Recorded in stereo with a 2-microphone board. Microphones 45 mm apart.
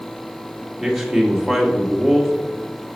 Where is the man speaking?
Centre (ahead or behind), 1.3 m.